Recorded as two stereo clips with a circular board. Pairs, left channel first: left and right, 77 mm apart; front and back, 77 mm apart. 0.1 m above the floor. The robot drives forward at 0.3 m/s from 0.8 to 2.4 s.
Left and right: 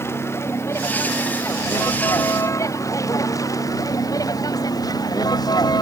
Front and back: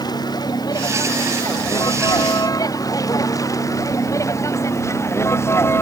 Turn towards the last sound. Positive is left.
turn(degrees=60)